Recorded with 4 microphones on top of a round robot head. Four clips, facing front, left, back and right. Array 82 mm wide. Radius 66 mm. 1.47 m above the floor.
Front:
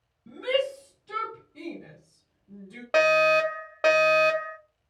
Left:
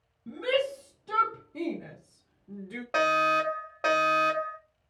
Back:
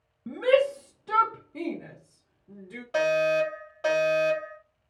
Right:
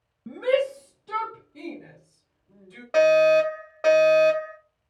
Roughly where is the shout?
Behind right.